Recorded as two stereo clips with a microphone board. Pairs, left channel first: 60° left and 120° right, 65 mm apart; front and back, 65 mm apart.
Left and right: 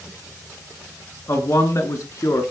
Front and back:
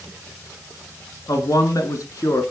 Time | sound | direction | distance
1.3 | a man speaking | 20° left | 4 m